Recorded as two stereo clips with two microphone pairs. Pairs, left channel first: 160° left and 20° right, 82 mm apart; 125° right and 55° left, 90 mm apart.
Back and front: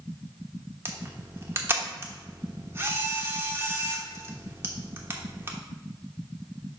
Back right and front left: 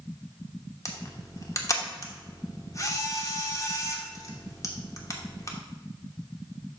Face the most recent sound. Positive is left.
turn(degrees=-80)